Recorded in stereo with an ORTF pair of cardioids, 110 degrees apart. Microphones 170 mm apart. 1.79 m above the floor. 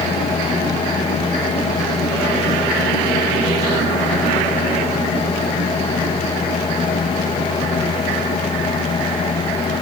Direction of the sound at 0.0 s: 35° left.